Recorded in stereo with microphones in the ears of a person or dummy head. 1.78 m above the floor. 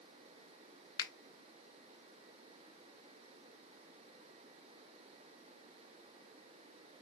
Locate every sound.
1.0 s a finger snap: 25° left (ahead or behind), 0.6 m